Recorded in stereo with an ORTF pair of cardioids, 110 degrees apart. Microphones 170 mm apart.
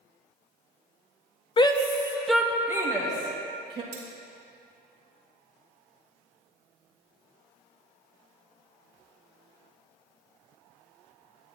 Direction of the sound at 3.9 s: 70° right.